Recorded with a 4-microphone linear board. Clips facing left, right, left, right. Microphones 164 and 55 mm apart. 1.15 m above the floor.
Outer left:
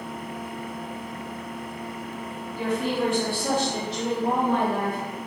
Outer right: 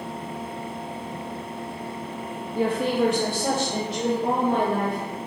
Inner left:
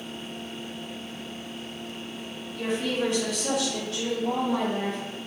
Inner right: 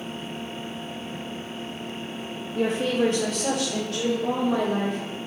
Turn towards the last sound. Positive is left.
turn(degrees=-80)